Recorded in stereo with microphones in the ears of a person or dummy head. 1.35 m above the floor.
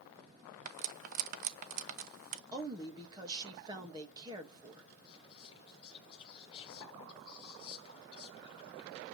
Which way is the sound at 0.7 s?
45° right (ahead or behind).